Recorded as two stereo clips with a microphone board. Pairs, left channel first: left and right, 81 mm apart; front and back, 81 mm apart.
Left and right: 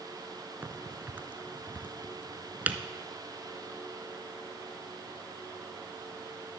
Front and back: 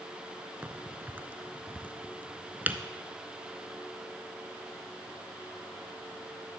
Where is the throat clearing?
No throat clearing in this recording.